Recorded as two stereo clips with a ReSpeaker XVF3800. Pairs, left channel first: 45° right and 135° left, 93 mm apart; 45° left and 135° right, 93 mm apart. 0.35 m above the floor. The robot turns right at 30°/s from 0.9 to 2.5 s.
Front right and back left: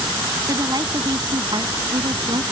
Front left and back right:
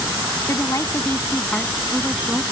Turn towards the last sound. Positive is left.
turn(degrees=145)